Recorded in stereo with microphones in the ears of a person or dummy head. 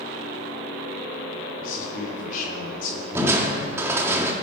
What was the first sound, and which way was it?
A man speaking, 50° left (ahead or behind).